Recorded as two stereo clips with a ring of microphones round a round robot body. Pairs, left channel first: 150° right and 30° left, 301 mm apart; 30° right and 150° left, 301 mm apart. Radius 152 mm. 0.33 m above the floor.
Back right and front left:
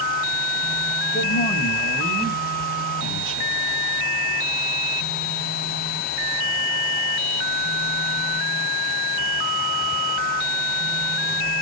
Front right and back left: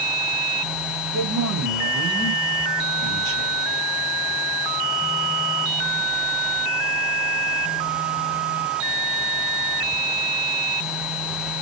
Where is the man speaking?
160° left, 1.5 m; by 3.6 s 100° left, 2.5 m.